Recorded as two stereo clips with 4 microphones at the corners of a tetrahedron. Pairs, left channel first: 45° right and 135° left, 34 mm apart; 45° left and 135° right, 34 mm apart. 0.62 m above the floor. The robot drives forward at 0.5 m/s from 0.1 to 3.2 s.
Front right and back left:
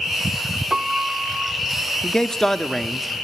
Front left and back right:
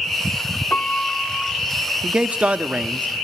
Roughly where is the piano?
Ahead left.